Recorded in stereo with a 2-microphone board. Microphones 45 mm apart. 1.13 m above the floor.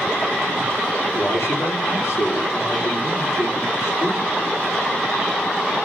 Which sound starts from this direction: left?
A man speaking, at 1.1 s.